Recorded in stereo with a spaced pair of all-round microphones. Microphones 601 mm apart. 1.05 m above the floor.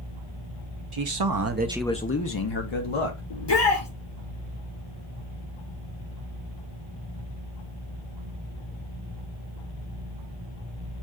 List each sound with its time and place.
0.9 s a man speaking: 55° right (ahead or behind), 0.8 m; by 3.2 s 60° left (ahead or behind), 1.2 m
3.3 s a shout: 45° left (ahead or behind), 0.8 m